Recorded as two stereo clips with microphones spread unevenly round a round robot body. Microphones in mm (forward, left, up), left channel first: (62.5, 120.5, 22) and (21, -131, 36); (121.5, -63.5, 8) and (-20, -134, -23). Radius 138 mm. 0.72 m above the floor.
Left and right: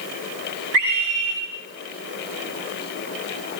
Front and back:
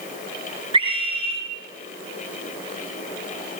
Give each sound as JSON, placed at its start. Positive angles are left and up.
{"t": 0.7, "sound": "a scream", "azimuth_deg": -95, "distance_m": 8.0}